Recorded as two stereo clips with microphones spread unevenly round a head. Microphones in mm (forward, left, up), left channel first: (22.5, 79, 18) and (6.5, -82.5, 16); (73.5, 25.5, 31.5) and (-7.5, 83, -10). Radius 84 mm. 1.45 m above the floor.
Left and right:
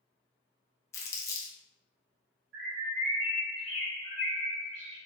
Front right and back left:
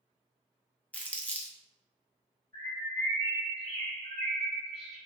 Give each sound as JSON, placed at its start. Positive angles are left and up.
{"t": 0.9, "sound": "crumpling", "azimuth_deg": 15, "distance_m": 0.6}
{"t": 2.5, "sound": "a bird", "azimuth_deg": -95, "distance_m": 1.6}